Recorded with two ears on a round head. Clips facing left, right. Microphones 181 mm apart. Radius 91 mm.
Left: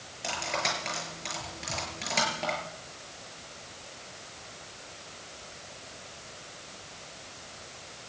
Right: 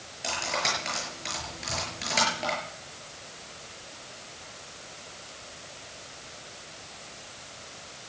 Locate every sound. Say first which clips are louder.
0.2 s cutlery clinking: right 1 dB; centre (ahead or behind), 6.5 m